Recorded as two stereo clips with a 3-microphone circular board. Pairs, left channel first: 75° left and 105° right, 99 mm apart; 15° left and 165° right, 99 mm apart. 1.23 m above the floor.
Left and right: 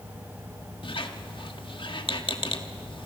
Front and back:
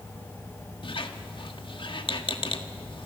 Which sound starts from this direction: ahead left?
A squeak, at 0.8 s.